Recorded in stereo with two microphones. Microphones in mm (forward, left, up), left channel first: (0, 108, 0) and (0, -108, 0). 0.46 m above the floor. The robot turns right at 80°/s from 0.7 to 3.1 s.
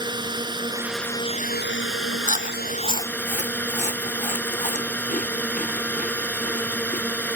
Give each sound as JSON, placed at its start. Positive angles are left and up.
{"t": 0.0, "sound": "a drone", "azimuth_deg": -20}
{"t": 2.2, "sound": "chewing", "side_deg": 35}